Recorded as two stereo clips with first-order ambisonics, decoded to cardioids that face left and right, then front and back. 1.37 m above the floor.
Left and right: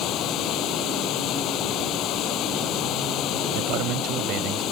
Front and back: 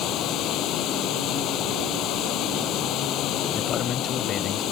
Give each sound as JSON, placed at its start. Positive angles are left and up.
{"t": 0.0, "sound": "running water", "azimuth_deg": 45}
{"t": 3.5, "sound": "a man speaking", "azimuth_deg": -60}